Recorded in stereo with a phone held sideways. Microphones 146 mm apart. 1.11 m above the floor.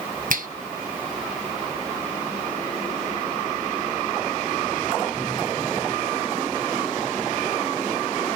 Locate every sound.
0.3 s a finger snap: 65° right (ahead or behind), 0.9 m